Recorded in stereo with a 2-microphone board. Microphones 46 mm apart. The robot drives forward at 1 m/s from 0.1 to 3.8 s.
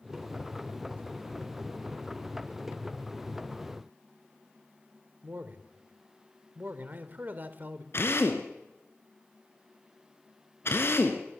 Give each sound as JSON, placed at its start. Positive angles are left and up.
{"t": 5.2, "sound": "a man speaking", "side_deg": -40, "distance_m": 2.0}
{"t": 7.9, "sound": "a drill", "side_deg": 60, "distance_m": 3.0}